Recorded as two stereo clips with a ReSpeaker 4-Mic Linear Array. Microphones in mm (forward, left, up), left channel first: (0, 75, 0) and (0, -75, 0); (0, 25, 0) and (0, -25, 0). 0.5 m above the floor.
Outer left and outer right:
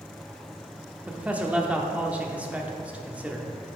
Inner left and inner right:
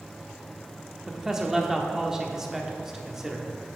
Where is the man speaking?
10° right (ahead or behind), 0.7 m.